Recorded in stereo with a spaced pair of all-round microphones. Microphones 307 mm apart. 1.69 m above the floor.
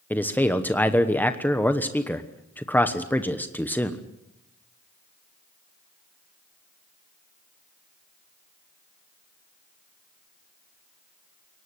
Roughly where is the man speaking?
Centre.